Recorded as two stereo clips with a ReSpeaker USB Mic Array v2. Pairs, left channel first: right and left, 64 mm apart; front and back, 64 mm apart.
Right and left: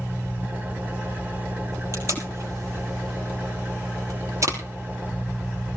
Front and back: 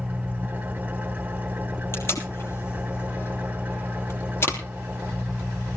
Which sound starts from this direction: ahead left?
Tape being pulled, at 1.9 s.